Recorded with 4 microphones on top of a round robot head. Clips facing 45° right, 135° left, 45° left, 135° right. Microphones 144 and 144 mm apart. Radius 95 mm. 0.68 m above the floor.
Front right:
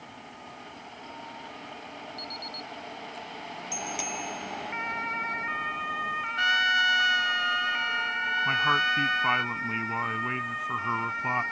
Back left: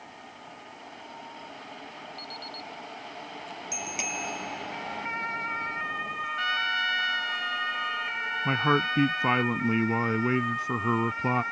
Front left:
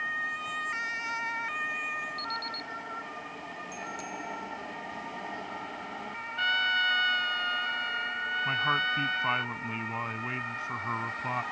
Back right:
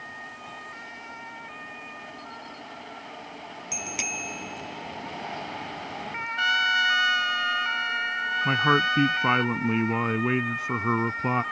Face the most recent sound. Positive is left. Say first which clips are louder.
# back left 5 dB, back right 10 dB
turn(degrees=-175)